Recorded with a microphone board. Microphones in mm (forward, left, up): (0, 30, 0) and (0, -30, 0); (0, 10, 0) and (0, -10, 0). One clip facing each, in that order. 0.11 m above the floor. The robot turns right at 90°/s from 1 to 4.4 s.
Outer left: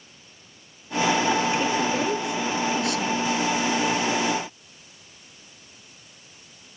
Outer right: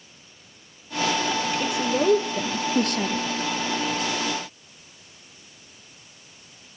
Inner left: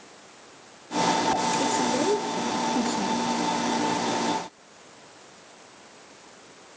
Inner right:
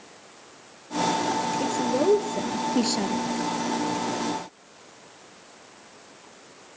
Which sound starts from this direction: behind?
A woman speaking, at 1.6 s.